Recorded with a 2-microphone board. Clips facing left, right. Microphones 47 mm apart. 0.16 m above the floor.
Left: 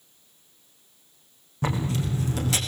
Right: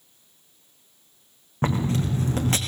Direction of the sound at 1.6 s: 35° right (ahead or behind).